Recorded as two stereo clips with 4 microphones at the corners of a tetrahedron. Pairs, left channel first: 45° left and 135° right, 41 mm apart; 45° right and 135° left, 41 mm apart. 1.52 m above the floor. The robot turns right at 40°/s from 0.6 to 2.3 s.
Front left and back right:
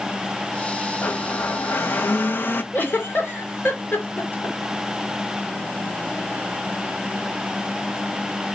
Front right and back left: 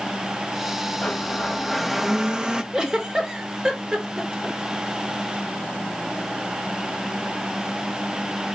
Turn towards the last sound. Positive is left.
turn(degrees=65)